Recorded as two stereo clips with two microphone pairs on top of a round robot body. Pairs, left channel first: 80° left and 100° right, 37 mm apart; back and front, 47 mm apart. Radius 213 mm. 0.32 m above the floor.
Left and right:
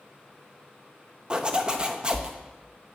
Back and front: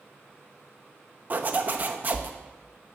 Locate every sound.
1.3 s a zipper: 45° right, 0.9 m